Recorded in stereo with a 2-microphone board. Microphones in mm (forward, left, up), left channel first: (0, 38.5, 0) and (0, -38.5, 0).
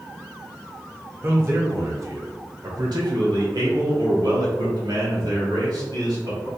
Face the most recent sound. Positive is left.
turn(degrees=-65)  # may be behind; listen again after turning